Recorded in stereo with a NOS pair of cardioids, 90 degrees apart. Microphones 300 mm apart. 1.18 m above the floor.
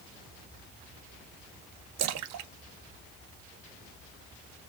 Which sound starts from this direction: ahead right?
A splash, at 2.0 s.